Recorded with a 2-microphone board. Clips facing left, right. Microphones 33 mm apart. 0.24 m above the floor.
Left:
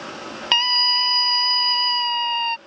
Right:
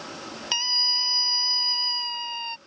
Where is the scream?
35° left (ahead or behind).